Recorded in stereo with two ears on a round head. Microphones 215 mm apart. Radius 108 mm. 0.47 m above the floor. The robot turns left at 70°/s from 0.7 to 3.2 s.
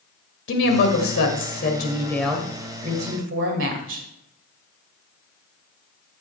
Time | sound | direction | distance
0.5 | a woman speaking | 110° left | 2 m